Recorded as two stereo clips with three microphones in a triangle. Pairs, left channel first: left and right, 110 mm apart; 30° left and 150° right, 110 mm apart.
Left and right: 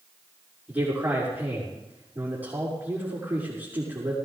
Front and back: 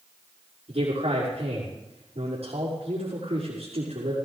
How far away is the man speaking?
About 6 m.